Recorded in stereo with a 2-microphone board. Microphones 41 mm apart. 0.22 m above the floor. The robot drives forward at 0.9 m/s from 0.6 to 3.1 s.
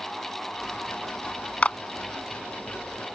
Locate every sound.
1.6 s a clap: 35° left (ahead or behind)